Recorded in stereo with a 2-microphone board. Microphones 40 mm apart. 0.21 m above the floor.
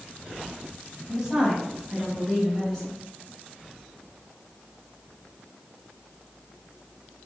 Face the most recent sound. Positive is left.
turn(degrees=25)  # may be behind; listen again after turning